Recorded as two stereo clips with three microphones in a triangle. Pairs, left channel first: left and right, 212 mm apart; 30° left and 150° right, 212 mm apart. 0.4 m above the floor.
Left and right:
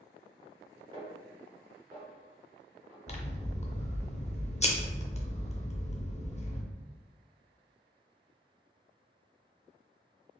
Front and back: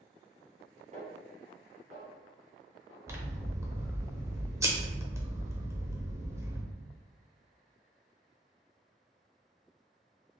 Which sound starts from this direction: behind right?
A snare drum, at 0.9 s.